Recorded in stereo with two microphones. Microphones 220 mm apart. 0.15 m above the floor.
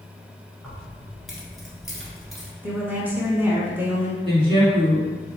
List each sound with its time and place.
0.6 s keys jangling: centre (ahead or behind), 1.5 m
2.6 s a woman speaking: 10° right (ahead or behind), 1.2 m
4.2 s a woman speaking: 25° right (ahead or behind), 1.7 m